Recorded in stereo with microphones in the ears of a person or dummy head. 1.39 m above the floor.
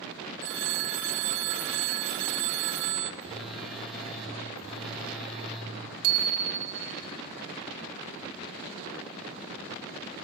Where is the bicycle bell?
85° right, 2.5 m.